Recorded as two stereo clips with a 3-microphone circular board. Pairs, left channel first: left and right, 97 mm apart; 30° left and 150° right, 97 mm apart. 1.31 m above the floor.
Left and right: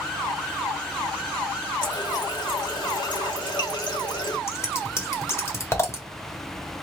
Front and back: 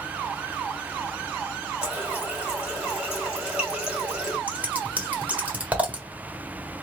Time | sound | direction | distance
1.8 | a running tap | 130° left | 2 m
4.5 | scissors | 140° left | 1.3 m